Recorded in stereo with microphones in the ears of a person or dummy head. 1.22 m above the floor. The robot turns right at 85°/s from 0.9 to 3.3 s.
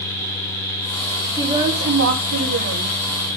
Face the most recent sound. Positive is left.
turn(degrees=0)